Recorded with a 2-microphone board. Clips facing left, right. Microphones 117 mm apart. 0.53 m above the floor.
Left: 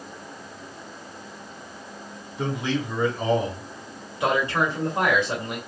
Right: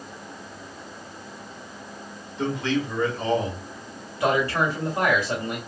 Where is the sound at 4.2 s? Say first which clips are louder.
Right 1 dB; 15° left (ahead or behind), 1.7 m.